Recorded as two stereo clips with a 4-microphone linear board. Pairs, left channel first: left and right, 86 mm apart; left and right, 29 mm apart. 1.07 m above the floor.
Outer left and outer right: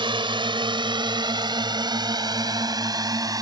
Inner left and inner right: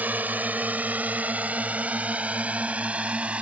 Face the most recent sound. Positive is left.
turn(degrees=-45)  # may be behind; listen again after turning